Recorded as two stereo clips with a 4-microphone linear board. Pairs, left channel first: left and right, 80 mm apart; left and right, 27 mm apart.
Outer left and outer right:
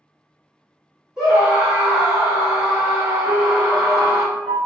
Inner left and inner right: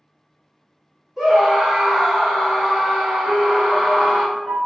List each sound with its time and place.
1.2 s a scream: 10° right (ahead or behind), 1.5 m
3.2 s a piano: 5° left (ahead or behind), 1.9 m